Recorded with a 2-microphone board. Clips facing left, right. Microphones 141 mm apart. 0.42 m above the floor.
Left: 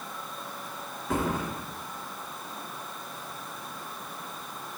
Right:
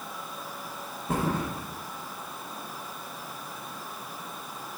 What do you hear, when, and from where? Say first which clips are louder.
1.1 s a thud: even; 35° right (ahead or behind), 2.5 m